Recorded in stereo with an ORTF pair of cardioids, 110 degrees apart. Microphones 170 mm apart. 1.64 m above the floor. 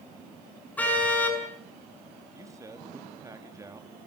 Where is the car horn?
10° left, 7.5 m.